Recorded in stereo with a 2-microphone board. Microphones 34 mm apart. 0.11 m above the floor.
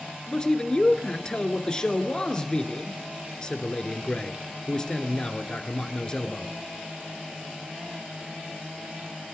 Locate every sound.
0.3 s a man speaking: 20° left (ahead or behind), 1.3 m